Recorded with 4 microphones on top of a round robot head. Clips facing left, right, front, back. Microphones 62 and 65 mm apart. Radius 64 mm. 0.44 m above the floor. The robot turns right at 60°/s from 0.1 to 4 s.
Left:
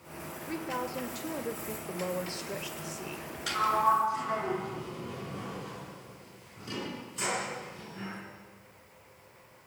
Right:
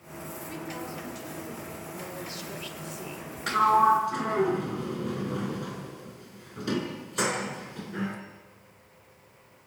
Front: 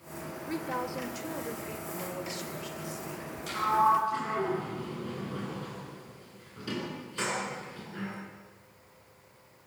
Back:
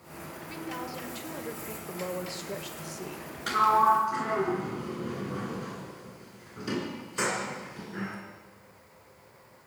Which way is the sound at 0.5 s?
30° left.